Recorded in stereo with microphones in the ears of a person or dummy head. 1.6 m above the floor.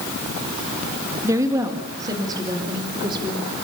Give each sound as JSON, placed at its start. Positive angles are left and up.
{"t": 1.2, "sound": "a woman speaking", "side_deg": -10, "distance_m": 2.0}